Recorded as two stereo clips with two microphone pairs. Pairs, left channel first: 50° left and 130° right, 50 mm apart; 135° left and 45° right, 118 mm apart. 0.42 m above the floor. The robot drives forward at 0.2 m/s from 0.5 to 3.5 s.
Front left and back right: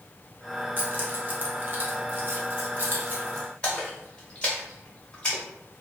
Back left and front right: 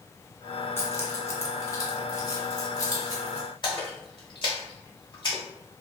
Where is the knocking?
I don't hear knocking.